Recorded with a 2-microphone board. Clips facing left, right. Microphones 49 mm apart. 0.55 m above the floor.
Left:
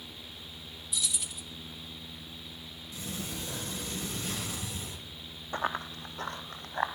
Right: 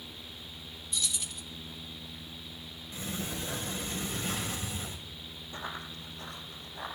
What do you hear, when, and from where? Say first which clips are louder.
0.9 s keys jangling: even; 5° left (ahead or behind), 0.6 m
2.9 s a sliding door: right 2 dB; 35° right (ahead or behind), 2.5 m
5.5 s running footsteps: left 8 dB; 50° left (ahead or behind), 0.8 m; by 6.9 s 65° left (ahead or behind), 1.6 m